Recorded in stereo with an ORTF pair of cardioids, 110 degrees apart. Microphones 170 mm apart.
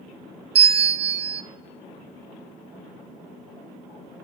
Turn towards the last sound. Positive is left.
turn(degrees=-35)